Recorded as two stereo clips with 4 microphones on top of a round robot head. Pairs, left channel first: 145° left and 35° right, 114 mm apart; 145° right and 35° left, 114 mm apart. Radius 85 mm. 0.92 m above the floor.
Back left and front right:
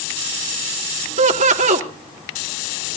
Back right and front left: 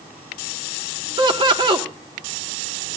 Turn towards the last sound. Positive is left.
turn(degrees=-15)